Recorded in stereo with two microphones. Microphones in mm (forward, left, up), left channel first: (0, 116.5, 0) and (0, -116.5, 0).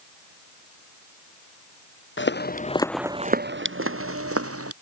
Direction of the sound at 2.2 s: 55° left (ahead or behind).